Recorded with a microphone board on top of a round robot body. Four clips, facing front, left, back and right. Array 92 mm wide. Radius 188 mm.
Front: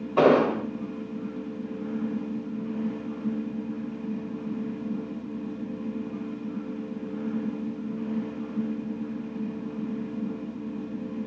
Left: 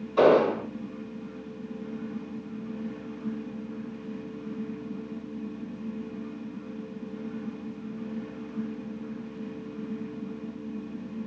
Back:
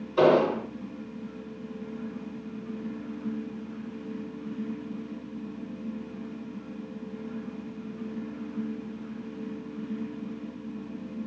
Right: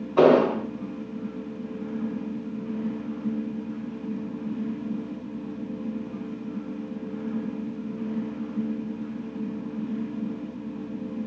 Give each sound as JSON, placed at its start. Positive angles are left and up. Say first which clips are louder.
{"t": 0.2, "sound": "an explosion", "louder": "right 2 dB, front 1 dB", "azimuth_deg": -35, "distance_m": 2.5}